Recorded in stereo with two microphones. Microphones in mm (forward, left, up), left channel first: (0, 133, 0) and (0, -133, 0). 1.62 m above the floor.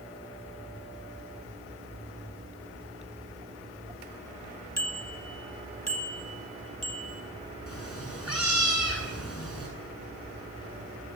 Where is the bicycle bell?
75° left (ahead or behind), 2 m; by 7.2 s 60° left (ahead or behind), 3.5 m.